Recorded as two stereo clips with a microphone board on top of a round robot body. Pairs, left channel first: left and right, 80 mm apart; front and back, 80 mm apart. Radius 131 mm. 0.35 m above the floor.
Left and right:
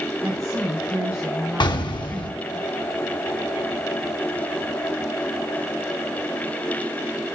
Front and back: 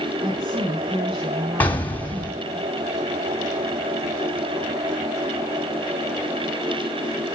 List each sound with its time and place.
0.2 s a woman speaking: 160° right, 3 m
1.6 s an explosion: 70° left, 1.7 m